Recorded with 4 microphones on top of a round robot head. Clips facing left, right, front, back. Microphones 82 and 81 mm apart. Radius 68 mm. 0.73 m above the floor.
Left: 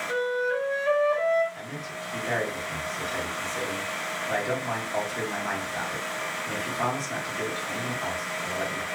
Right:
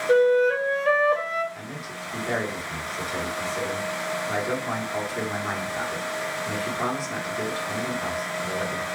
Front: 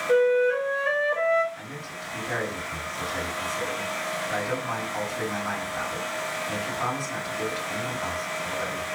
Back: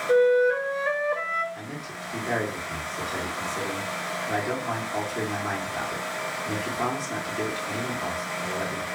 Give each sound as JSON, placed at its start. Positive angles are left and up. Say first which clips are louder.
{"t": 0.1, "sound": "a flute", "louder": "right 9 dB, back 1 dB", "azimuth_deg": -105, "distance_m": 0.7}
{"t": 1.5, "sound": "a man speaking", "louder": "even, back 1 dB", "azimuth_deg": -170, "distance_m": 2.0}